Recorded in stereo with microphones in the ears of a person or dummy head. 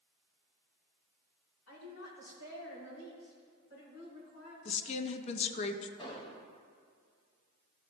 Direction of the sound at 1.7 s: 80° left.